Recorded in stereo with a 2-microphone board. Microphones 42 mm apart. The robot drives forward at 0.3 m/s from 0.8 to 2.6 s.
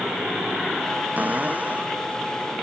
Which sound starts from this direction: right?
A cupboard door, at 1.2 s.